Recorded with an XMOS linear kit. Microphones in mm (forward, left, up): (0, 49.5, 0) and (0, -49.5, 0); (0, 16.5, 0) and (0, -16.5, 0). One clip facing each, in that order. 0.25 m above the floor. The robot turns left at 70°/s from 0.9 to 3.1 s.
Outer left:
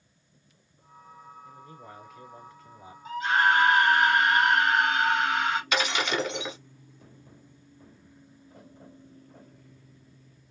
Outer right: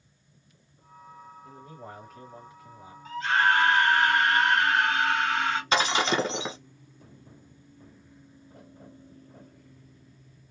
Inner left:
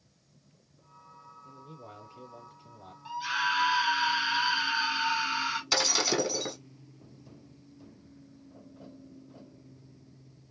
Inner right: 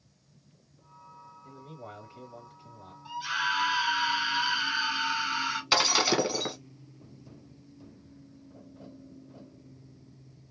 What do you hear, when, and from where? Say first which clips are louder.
1.4 s a man speaking: outer right 2 dB, inner right 4 dB; 85° right, 2.5 m; by 3.0 s 170° left, 2.5 m
3.0 s a scream: outer left 1 dB, even; 10° left (ahead or behind), 1.2 m; by 5.6 s 5° left (ahead or behind), 1.2 m
5.7 s breaking glass: outer right 3 dB, inner right 4 dB; 30° right (ahead or behind), 1.0 m